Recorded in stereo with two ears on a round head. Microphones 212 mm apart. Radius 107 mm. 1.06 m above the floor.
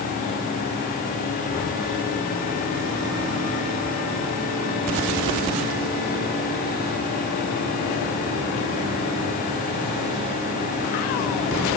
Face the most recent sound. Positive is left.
No sound to turn to.